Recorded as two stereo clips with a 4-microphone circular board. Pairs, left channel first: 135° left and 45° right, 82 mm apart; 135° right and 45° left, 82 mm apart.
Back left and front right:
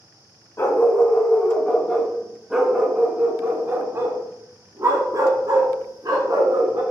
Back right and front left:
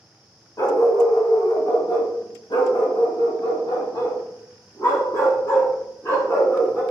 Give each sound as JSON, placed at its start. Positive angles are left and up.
{"t": 0.6, "sound": "a dog barking", "azimuth_deg": -175, "distance_m": 1.5}